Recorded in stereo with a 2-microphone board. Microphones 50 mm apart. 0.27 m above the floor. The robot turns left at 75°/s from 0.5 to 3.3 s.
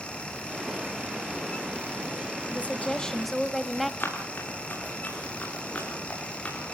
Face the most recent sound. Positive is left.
turn(degrees=25)  # may be behind; listen again after turning